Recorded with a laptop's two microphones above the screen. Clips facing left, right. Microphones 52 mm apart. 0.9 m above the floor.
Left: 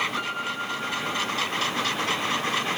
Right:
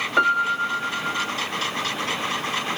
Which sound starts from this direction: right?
A piano, at 0.2 s.